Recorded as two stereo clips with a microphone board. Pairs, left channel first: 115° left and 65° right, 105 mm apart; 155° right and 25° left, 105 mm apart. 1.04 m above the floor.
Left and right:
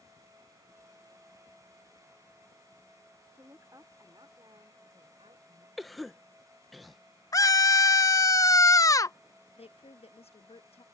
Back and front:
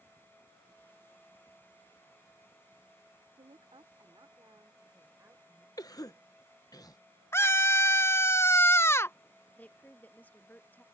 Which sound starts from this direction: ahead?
A woman speaking, at 3.4 s.